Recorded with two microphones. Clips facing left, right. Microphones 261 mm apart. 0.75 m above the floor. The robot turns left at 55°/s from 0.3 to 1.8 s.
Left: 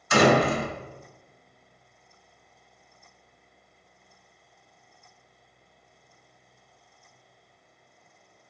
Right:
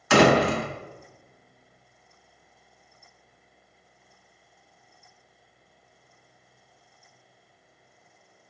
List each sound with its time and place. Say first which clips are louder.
0.1 s a door slam: right 2 dB; 75° right (ahead or behind), 1.0 m; by 0.7 s 70° right (ahead or behind), 1.0 m